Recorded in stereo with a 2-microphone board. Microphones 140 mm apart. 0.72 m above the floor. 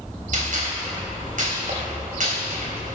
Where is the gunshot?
70° right (ahead or behind), 3.5 m.